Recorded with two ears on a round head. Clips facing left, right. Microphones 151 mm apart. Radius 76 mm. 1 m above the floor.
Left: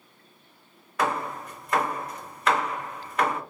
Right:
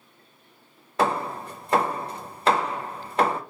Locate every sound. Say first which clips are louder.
1.0 s hammering: right 3 dB; 25° right (ahead or behind), 0.7 m